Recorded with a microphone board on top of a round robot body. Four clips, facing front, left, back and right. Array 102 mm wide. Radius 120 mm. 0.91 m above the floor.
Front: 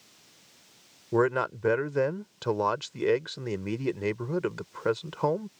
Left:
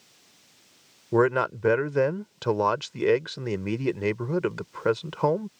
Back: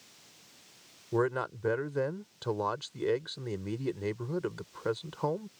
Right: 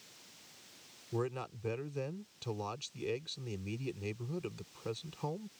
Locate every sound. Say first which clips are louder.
1.1 s a man speaking: left 16 dB, front 5 dB; 75° left